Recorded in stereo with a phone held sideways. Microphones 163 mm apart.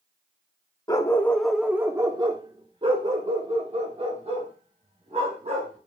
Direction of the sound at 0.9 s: 25° left (ahead or behind).